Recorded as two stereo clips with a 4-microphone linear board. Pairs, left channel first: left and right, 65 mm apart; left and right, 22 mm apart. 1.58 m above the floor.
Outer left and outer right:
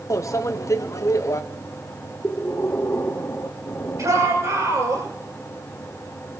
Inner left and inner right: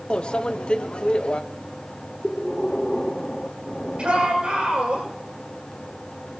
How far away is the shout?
About 7.5 m.